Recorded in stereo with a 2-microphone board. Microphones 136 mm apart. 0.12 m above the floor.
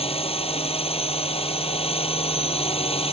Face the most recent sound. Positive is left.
turn(degrees=45)  # may be behind; listen again after turning